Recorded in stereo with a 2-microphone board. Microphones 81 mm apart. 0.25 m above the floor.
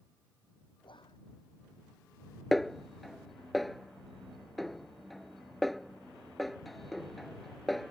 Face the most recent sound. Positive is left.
turn(degrees=0)  # may be behind; listen again after turning